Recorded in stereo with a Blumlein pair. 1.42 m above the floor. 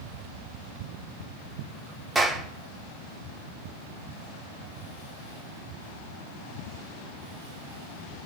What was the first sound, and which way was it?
A clap, 15° right.